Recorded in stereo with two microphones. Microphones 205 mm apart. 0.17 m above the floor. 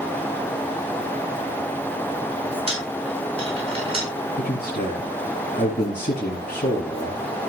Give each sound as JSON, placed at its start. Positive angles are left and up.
{"t": 2.7, "sound": "a dropped coin", "side_deg": -25, "distance_m": 5.0}
{"t": 4.4, "sound": "a man speaking", "side_deg": 45, "distance_m": 2.0}